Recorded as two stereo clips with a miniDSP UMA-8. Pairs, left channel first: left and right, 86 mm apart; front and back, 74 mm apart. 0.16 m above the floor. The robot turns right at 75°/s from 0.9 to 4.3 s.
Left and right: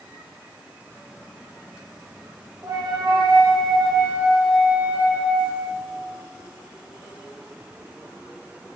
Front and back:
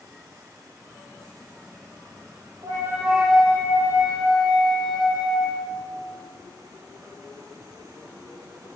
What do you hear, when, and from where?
2.6 s a flute: 140° right, 2.5 m; by 5.8 s 15° right, 2.5 m